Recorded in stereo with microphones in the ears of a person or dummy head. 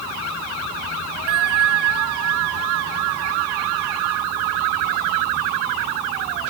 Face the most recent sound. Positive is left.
turn(degrees=-60)  # may be behind; listen again after turning